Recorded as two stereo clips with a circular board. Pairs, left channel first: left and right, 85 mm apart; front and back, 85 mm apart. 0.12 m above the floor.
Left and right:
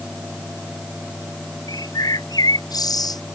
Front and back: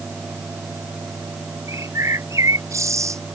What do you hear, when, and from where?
1.7 s a bird: 125° left